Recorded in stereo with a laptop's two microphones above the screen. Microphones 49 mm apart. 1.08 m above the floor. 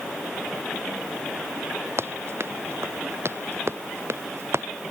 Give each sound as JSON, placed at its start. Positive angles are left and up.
{"t": 2.0, "sound": "running footsteps", "side_deg": -60}